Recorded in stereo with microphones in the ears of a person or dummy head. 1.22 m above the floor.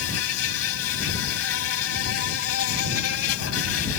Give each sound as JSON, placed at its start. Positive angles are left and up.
{"t": 0.0, "sound": "an insect", "side_deg": 90}